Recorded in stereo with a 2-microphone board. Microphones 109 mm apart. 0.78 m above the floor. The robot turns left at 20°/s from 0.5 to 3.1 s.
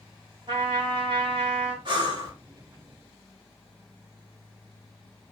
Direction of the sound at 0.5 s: 50° right (ahead or behind).